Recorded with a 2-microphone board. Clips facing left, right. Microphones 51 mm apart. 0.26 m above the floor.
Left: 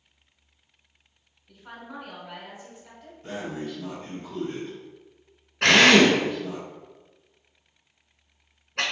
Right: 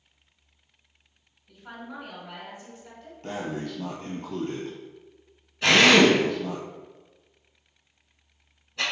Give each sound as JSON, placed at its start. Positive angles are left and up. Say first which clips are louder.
{"t": 1.5, "sound": "a woman speaking", "louder": "right 1 dB", "side_deg": -5, "distance_m": 1.4}
{"t": 3.2, "sound": "breathing", "louder": "right 1 dB", "side_deg": -80, "distance_m": 1.4}
{"t": 5.6, "sound": "a drill", "louder": "left 1 dB", "side_deg": 70, "distance_m": 1.5}